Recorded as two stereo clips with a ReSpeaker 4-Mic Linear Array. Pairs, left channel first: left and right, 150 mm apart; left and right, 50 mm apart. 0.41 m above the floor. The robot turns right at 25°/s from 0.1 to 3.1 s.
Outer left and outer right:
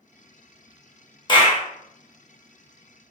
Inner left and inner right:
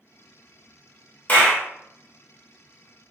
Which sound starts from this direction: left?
A clap, at 1.3 s.